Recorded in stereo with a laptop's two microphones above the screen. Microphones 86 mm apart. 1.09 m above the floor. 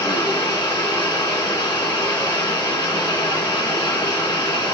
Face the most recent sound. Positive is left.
turn(degrees=75)  # may be behind; listen again after turning